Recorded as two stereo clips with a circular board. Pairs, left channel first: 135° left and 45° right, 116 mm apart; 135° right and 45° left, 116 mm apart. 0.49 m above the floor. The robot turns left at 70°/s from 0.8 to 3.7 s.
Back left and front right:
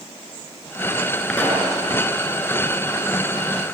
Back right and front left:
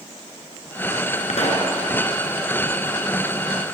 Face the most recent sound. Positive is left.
turn(degrees=50)